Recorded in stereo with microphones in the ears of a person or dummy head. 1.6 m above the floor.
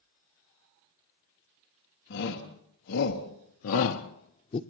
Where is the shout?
50° left (ahead or behind), 2 m; by 4.6 s 35° left (ahead or behind), 0.9 m.